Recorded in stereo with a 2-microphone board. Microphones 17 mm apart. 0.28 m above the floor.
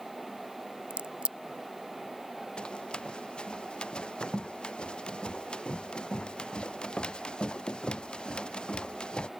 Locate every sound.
0.9 s a crack: 80° right
2.6 s running footsteps: 70° left (ahead or behind); by 9.3 s 65° left (ahead or behind)